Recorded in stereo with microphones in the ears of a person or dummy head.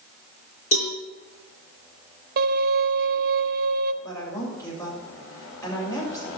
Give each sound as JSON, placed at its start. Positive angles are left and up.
{"t": 0.7, "sound": "a cowbell", "side_deg": 65, "distance_m": 7.0}
{"t": 2.4, "sound": "a violin", "side_deg": -50, "distance_m": 1.0}
{"t": 4.0, "sound": "a woman speaking", "side_deg": 15, "distance_m": 6.5}